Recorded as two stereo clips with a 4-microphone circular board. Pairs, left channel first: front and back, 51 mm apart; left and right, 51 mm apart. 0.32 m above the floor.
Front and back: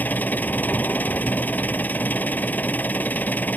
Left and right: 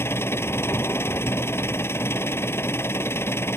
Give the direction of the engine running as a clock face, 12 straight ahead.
10 o'clock.